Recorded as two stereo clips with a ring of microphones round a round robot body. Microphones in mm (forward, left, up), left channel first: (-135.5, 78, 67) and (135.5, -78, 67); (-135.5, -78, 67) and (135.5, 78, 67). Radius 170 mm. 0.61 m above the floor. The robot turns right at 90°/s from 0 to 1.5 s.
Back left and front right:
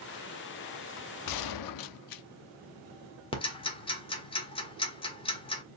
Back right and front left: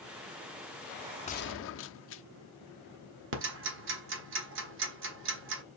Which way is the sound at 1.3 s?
140° left.